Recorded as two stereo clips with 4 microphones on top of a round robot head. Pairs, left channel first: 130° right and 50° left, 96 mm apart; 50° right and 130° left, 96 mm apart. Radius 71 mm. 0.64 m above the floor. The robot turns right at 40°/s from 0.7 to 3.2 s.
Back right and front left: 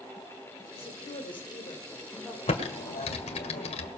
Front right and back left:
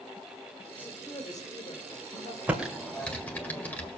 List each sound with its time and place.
0.7 s a woman speaking: 125° right, 2.5 m; by 2.4 s 60° right, 2.5 m
2.5 s typing on a keyboard: 155° right, 2 m; by 3.9 s 125° right, 2 m